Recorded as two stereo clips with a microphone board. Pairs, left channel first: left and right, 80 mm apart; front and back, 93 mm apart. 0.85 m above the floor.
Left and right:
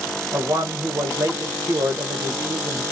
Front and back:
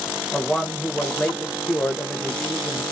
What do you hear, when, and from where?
0.3 s a man speaking: 70° right, 0.7 m